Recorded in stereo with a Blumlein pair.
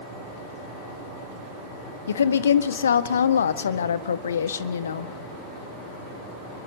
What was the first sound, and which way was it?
A woman speaking, 65° left.